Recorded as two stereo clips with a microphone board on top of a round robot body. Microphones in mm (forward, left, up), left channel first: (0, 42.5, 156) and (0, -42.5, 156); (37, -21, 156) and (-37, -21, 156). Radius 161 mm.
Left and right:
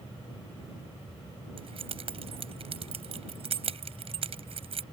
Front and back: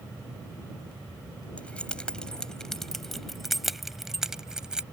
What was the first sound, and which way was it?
Keys jangling, 75° right.